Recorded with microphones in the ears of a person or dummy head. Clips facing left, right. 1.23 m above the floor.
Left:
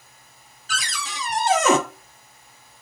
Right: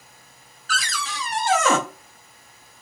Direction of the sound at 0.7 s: 20° left (ahead or behind).